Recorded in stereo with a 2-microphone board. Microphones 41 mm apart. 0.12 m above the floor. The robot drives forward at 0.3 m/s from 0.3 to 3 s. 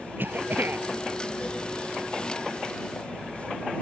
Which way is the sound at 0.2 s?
60° right (ahead or behind).